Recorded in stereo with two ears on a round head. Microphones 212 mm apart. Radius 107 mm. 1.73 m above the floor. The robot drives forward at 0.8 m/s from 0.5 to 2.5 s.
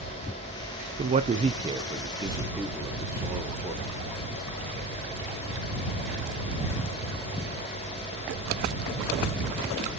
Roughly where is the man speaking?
Right.